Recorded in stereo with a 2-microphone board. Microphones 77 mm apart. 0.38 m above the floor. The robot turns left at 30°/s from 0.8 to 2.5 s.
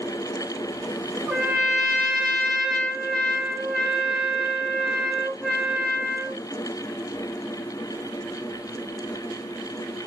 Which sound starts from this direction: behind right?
A trumpet, at 1.3 s.